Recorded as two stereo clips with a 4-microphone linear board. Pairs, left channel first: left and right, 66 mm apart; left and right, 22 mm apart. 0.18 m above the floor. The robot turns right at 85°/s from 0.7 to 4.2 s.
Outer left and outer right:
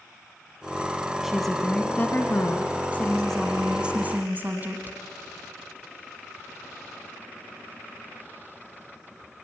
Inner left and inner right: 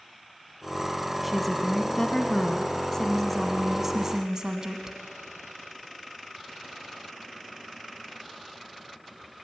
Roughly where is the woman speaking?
Ahead.